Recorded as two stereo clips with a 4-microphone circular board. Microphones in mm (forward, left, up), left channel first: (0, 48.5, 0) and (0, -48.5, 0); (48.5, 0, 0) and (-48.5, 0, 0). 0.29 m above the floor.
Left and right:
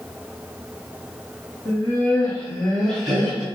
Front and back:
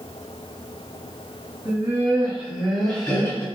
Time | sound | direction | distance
1.6 | laughter | 140° left | 1.7 m